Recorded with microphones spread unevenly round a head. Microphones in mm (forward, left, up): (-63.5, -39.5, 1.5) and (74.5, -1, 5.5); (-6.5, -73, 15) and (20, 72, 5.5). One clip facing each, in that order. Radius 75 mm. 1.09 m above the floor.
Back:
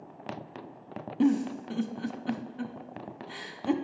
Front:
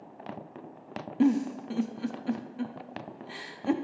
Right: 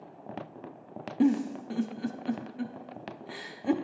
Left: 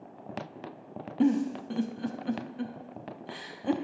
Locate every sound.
1.2 s a giggle: 50° right, 0.5 m